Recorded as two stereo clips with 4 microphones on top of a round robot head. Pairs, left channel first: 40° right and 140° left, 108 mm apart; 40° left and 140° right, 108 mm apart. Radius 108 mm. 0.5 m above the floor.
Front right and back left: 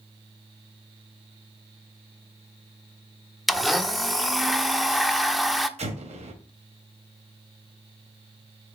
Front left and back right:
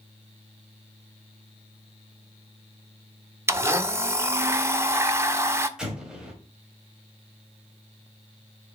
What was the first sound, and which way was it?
A blender, 130° right.